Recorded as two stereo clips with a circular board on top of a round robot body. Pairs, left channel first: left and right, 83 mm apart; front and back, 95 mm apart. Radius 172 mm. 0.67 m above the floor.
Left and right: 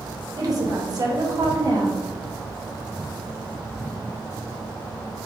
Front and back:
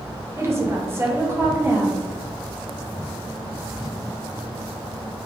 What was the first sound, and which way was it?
A woman speaking, 125° right.